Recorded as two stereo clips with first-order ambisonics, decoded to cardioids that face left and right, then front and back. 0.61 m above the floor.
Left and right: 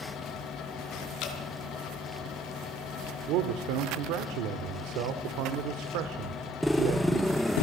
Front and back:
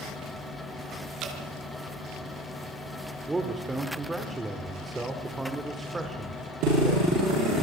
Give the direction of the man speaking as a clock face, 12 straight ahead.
3 o'clock.